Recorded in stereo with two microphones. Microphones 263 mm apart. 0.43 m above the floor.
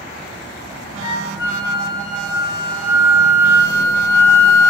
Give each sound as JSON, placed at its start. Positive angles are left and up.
{"t": 1.0, "sound": "a flute", "side_deg": -20, "distance_m": 0.7}